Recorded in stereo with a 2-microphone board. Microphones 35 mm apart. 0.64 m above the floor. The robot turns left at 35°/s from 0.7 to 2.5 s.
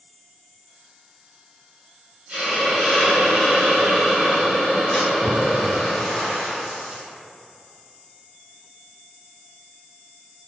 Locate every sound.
2.3 s a hiss: 45° right (ahead or behind), 1.3 m
4.9 s a splash: 5° left (ahead or behind), 1.0 m